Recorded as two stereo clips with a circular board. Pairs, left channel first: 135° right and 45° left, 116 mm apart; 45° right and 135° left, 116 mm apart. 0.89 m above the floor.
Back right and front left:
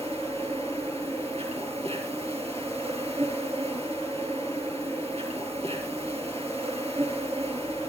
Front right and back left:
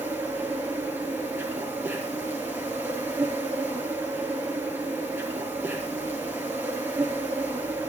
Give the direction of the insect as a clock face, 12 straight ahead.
10 o'clock.